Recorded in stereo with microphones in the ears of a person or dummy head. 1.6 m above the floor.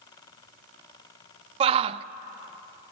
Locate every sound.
1.6 s a shout: 35° right (ahead or behind), 0.5 m